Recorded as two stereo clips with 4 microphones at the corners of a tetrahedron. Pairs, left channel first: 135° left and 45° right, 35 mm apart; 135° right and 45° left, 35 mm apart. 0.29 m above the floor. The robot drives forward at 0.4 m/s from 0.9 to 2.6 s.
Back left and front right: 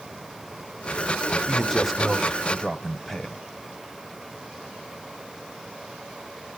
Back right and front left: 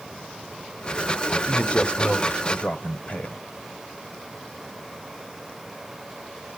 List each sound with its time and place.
1.5 s a man speaking: 140° right, 1.2 m; by 3.4 s 155° right, 1.5 m